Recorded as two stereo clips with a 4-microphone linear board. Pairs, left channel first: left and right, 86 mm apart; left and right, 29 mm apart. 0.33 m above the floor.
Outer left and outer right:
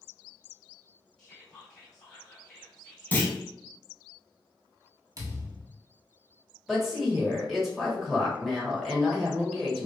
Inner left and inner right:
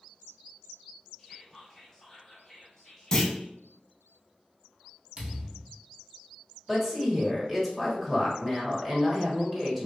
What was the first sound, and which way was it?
Whispering, 10° left (ahead or behind).